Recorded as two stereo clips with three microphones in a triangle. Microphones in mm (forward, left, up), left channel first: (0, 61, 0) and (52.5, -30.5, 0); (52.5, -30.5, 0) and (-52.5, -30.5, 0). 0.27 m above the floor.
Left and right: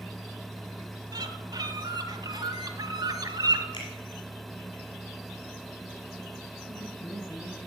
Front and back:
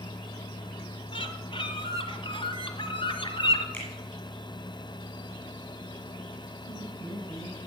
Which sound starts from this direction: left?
A finger snap, at 3.7 s.